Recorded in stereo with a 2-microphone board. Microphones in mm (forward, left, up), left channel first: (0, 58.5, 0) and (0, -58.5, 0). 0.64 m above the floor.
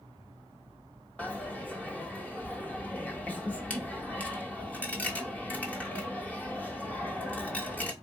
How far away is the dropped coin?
About 1.0 m.